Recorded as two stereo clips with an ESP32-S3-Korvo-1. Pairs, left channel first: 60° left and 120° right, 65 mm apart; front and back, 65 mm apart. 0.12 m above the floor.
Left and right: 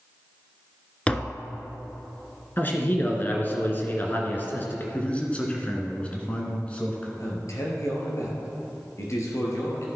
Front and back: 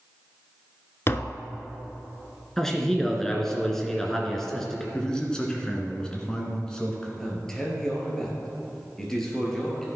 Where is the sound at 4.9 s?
55° left, 1.7 m.